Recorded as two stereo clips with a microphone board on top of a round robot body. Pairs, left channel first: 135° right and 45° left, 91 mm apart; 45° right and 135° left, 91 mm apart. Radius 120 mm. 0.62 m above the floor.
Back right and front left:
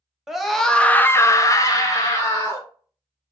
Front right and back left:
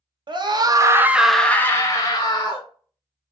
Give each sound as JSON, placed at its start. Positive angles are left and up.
{"t": 0.3, "sound": "a scream", "azimuth_deg": 130, "distance_m": 1.0}